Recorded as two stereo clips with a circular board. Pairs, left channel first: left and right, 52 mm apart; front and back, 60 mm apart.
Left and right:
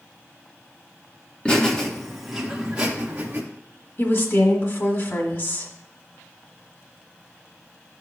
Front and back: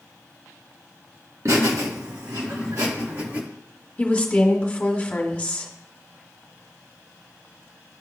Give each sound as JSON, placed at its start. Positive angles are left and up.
{"t": 1.4, "sound": "laughter", "azimuth_deg": 160, "distance_m": 1.7}
{"t": 4.0, "sound": "a woman speaking", "azimuth_deg": 60, "distance_m": 1.5}